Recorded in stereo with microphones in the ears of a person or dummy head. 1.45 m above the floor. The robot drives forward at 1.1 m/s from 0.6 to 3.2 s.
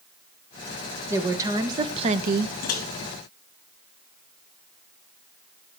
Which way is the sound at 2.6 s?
50° left (ahead or behind).